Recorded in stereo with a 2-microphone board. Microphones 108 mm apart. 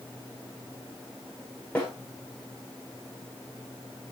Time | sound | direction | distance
1.8 | a snare drum | 10° left (ahead or behind) | 9.5 m